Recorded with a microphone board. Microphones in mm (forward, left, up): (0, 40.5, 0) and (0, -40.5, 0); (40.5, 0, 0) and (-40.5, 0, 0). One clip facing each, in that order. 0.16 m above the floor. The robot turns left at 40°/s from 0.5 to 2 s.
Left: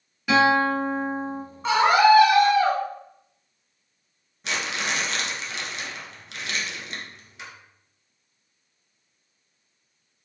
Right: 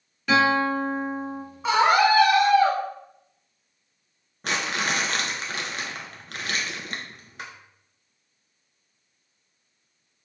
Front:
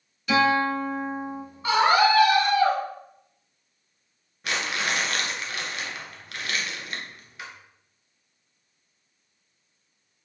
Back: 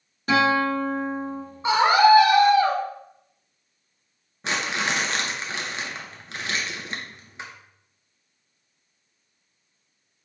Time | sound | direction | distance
0.3 | a guitar | 170° left | 2 m
1.6 | a scream | 170° right | 1.4 m
4.4 | crumpling | 120° right | 1.0 m